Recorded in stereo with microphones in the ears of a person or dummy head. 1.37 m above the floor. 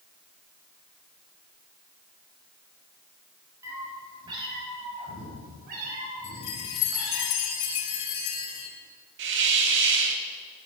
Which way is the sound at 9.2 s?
55° right (ahead or behind).